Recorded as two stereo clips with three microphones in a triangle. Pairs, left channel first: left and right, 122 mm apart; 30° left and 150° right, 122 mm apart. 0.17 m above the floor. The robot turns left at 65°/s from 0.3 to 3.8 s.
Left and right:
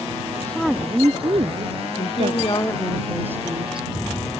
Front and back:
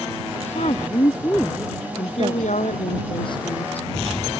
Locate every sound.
0.4 s a woman speaking: 15° left; by 3.0 s 150° right
2.0 s a woman speaking: 70° left; by 3.9 s 50° right